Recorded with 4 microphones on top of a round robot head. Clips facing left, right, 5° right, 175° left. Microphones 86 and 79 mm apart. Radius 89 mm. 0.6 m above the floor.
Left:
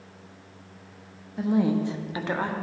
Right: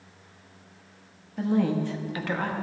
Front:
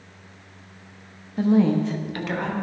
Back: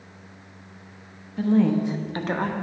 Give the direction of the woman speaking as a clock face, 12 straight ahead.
12 o'clock.